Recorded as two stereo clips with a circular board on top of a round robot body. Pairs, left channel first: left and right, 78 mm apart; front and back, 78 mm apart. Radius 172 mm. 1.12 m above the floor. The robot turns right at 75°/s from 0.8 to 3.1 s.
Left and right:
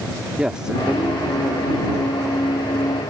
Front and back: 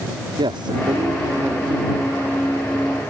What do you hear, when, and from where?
0.4 s a man speaking: 170° right; by 3.0 s 5° right